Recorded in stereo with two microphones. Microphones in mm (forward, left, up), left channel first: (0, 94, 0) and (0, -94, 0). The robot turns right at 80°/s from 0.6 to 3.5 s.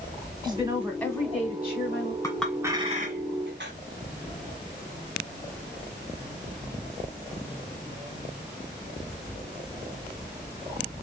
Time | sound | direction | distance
0.4 | a woman speaking | 25° right | 2 m
2.2 | a clink | 15° left (ahead or behind) | 1.4 m